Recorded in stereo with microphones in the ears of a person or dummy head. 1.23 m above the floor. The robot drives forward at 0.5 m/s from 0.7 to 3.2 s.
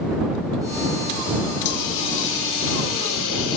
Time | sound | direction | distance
1.6 | a hiss | 65° left (ahead or behind) | 5 m